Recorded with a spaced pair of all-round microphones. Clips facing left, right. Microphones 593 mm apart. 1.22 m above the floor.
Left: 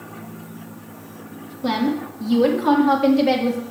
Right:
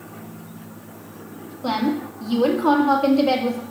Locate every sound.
1.6 s a woman speaking: 45° left (ahead or behind), 1.8 m